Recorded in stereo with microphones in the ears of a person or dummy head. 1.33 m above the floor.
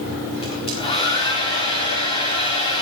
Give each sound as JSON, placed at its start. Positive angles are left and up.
{"t": 0.4, "sound": "a hair dryer", "side_deg": 30, "distance_m": 4.5}